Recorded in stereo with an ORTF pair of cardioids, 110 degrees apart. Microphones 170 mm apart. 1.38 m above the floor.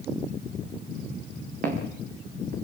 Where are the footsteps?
60° right, 6 m.